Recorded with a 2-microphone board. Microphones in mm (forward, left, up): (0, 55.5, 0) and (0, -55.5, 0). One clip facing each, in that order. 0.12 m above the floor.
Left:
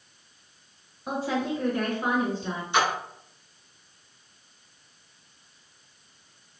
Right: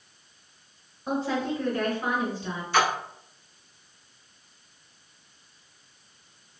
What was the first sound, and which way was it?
A woman speaking, 5° left (ahead or behind).